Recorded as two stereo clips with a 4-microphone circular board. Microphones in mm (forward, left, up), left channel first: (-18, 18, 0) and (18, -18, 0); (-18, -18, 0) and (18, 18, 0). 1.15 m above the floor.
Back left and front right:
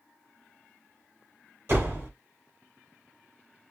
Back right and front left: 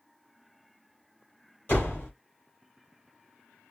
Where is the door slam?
80° right, 3.5 m.